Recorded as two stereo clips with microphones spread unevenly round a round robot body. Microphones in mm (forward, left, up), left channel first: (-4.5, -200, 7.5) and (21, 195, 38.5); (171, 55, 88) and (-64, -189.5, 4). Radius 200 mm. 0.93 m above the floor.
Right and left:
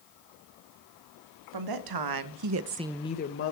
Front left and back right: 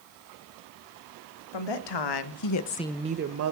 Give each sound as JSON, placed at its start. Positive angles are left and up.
{"t": 1.5, "sound": "a woman speaking", "azimuth_deg": 50, "distance_m": 2.0}